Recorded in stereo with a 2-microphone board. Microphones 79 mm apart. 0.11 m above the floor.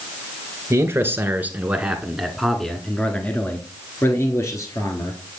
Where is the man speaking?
35° right (ahead or behind), 1.5 m; by 5.2 s 45° left (ahead or behind), 1.9 m.